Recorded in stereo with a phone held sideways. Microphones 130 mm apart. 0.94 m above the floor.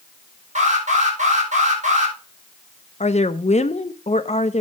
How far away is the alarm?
About 6.5 m.